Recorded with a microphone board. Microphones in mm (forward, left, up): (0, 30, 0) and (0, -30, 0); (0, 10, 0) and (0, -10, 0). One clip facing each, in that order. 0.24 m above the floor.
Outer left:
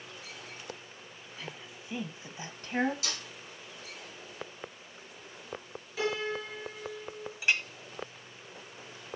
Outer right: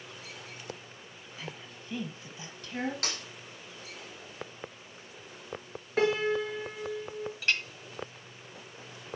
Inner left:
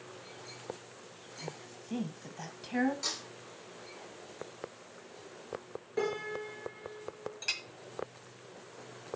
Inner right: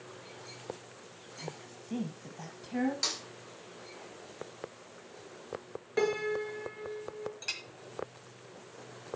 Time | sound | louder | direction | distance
1.4 | a woman speaking | outer right 1 dB, even | 5° right (ahead or behind) | 1.8 m
3.0 | a snare drum | outer right 2 dB, inner right 3 dB | 60° right (ahead or behind) | 5 m
6.0 | a piano | outer right 6 dB, inner right 4 dB | 50° right (ahead or behind) | 2 m
7.4 | a clink | outer left 2 dB, inner left 4 dB | 15° left (ahead or behind) | 0.8 m